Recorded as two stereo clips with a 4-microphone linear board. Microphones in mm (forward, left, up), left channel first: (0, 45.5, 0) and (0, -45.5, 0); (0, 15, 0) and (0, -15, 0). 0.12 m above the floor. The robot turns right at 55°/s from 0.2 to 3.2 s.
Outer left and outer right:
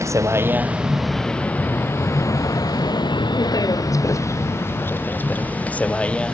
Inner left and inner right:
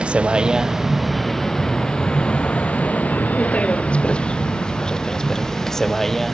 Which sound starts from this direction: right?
A vehicle, at 0.0 s.